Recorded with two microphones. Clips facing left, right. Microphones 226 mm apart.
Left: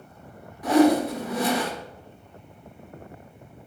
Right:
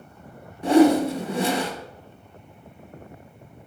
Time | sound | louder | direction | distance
0.6 | a whoosh | right 2 dB | 25° right (ahead or behind) | 1.0 m